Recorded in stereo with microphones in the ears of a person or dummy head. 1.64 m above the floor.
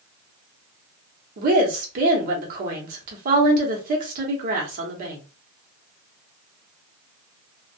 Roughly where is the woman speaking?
Right.